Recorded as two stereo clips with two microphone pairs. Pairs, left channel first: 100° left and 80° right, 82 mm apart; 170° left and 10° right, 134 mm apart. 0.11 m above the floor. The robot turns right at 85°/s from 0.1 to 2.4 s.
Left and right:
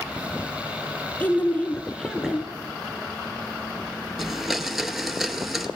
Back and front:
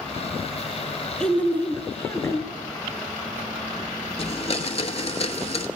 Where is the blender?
165° right, 0.9 m.